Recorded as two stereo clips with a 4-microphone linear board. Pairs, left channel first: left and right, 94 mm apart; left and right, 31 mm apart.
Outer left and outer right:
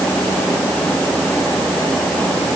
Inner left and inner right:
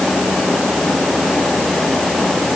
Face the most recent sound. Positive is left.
No sound to turn to.